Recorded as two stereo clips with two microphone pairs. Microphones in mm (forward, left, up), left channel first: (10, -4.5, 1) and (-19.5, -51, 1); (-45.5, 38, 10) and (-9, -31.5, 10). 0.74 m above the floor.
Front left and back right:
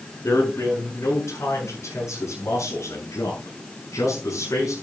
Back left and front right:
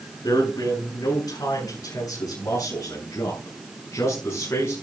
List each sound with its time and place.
0.2 s a man speaking: 85° left, 7 m; by 4.7 s 65° left, 6 m